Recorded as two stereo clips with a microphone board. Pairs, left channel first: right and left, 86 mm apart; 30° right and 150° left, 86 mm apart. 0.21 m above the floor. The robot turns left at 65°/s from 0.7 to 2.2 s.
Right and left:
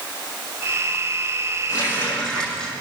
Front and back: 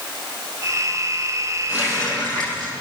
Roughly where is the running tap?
Behind right.